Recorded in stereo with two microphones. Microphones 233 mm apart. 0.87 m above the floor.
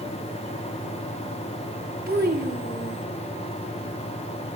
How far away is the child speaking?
About 1.3 m.